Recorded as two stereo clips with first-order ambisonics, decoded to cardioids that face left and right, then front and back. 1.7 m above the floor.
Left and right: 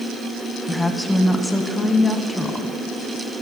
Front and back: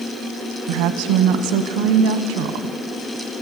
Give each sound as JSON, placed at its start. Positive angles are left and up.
{"t": 0.7, "sound": "a woman speaking", "azimuth_deg": 180, "distance_m": 0.9}